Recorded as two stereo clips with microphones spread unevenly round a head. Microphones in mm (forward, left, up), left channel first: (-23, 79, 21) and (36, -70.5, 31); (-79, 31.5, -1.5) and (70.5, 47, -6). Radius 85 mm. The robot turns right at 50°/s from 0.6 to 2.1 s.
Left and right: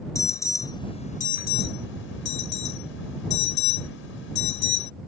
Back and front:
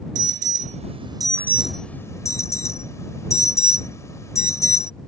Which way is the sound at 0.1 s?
40° left.